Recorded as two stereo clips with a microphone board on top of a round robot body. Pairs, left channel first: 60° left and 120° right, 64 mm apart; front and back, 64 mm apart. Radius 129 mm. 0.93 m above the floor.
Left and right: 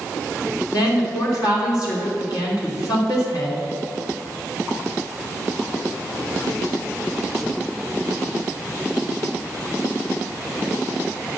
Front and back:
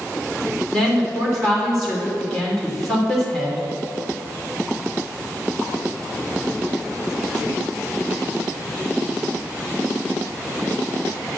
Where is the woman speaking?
85° left, 3 m.